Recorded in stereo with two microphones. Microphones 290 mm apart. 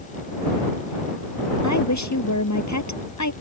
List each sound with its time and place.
1.6 s a woman speaking: 75° left (ahead or behind)